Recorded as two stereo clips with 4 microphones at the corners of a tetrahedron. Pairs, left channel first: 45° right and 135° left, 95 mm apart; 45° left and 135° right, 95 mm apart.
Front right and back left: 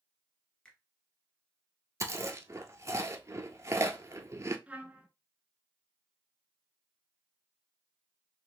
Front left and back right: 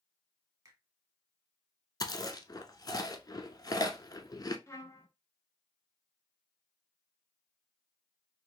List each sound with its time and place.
0.7 s a finger snap: 120° right, 1.5 m
2.0 s chewing: 85° left, 0.6 m
4.7 s a trumpet: 70° left, 0.7 m